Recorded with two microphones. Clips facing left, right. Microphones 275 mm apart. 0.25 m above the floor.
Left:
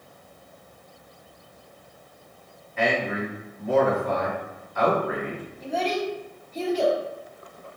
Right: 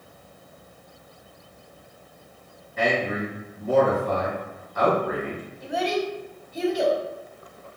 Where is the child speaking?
10° right (ahead or behind), 0.9 m.